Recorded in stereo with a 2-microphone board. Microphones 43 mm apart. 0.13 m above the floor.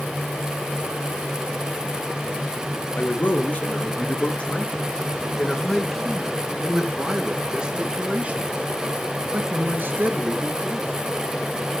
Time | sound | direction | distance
2.9 | a man speaking | 40° left (ahead or behind) | 3 m